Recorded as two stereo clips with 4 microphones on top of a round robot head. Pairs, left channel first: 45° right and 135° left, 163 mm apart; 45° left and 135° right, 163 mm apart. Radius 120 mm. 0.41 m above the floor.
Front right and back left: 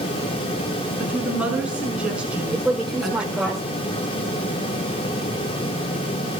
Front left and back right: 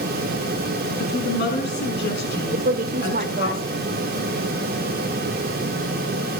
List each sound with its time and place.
1.0 s a woman speaking: 50° left, 5 m
2.5 s a woman speaking: 135° right, 1.6 m